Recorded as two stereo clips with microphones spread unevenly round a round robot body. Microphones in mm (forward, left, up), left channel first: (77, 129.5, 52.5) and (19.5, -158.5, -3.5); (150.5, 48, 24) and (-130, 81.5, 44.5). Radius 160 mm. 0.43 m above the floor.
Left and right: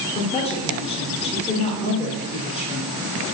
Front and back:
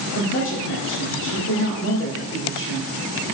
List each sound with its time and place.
0.1 s a woman speaking: 5° left, 1.1 m